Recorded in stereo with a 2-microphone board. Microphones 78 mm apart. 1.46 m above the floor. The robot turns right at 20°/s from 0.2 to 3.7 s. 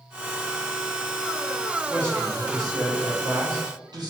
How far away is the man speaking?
About 0.8 m.